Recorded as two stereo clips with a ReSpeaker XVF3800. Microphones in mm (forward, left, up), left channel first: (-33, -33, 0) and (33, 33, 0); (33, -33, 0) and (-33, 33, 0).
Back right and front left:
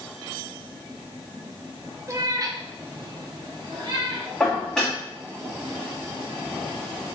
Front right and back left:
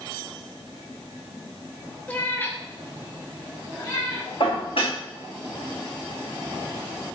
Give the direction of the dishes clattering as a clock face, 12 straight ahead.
2 o'clock.